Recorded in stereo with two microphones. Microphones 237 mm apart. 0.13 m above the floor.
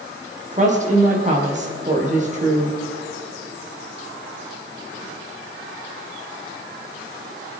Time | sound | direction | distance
0.5 | a woman speaking | 30° right (ahead or behind) | 4.5 m